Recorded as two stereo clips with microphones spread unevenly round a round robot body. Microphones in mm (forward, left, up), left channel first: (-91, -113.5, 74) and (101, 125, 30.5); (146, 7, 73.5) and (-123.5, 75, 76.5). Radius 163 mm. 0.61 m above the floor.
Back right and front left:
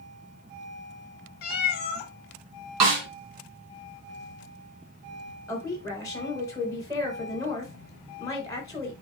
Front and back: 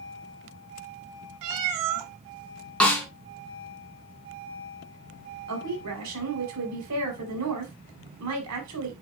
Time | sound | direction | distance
1.4 | a cat meowing | straight behind | 0.8 m
2.8 | a snare drum | 70° left | 2.5 m
5.5 | a woman speaking | 150° left | 4 m